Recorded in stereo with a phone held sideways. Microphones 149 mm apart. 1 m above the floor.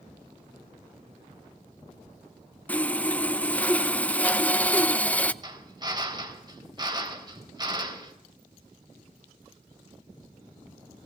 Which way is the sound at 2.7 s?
10° left (ahead or behind).